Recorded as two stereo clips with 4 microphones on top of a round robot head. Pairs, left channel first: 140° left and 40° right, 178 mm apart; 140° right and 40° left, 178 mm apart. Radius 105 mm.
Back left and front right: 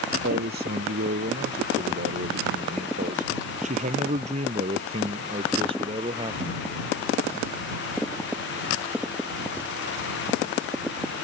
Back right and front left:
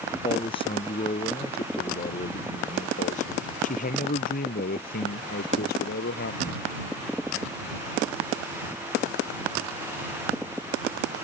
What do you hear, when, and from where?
0.2 s a man speaking: 75° right; by 6.6 s 110° right